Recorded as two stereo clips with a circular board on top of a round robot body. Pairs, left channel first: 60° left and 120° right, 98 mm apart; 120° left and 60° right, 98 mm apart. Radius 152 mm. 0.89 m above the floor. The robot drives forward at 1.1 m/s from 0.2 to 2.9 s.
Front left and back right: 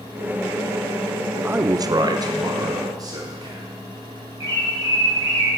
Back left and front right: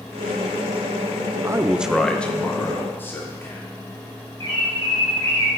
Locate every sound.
1.4 s a man speaking: 55° right, 0.6 m; by 3.6 s 170° right, 1.6 m
4.4 s a bird: straight behind, 2.5 m